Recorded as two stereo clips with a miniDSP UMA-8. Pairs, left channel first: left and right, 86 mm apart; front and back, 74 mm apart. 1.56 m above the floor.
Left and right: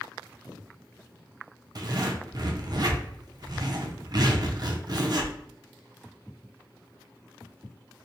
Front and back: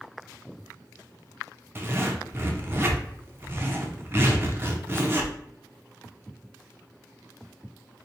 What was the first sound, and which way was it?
A zipper, 120° right.